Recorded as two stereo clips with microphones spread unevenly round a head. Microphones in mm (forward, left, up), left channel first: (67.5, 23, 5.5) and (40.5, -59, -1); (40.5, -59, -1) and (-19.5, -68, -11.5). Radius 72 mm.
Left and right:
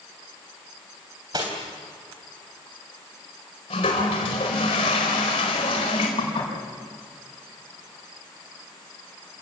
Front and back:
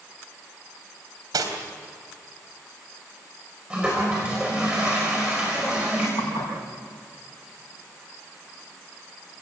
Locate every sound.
1.3 s cutlery clinking: 175° right, 3.5 m
3.7 s a toilet flushing: 105° left, 4.5 m
6.2 s dishes clattering: 60° left, 6.5 m